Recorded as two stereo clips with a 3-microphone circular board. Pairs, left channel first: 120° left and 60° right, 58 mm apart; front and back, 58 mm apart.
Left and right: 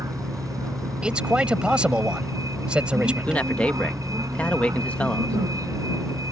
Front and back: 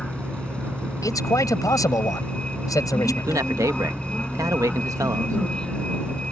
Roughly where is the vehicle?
Right.